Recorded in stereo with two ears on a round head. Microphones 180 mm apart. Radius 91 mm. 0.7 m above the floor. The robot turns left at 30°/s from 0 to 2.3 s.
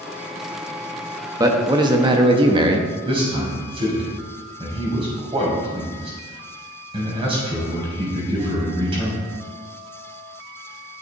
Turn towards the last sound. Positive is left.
turn(degrees=-25)  # may be behind; listen again after turning